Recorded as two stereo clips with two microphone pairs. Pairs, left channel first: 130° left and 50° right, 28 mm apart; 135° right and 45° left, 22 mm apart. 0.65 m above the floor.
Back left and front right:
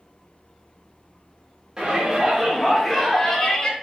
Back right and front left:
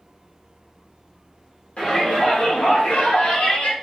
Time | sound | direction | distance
1.8 | a shout | 110° right | 1.3 m